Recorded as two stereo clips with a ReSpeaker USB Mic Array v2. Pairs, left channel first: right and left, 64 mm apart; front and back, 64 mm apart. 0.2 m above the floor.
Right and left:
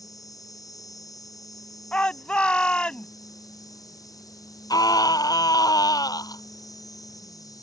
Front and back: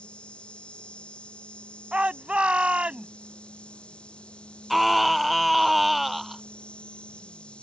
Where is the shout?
135° right.